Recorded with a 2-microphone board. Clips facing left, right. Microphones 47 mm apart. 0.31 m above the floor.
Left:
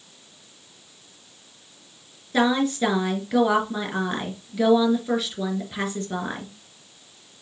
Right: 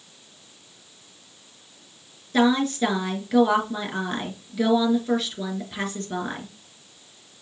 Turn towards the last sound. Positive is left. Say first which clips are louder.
# right 1 dB
turn(degrees=5)  # may be behind; listen again after turning